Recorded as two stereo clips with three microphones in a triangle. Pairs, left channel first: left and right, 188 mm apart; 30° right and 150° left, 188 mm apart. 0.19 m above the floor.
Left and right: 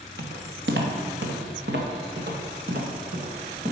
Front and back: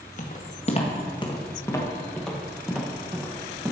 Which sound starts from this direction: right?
Footsteps, at 0.2 s.